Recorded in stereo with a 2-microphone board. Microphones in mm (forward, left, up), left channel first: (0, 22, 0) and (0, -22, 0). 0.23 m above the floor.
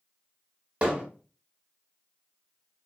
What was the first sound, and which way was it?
Hammering, 30° right (ahead or behind).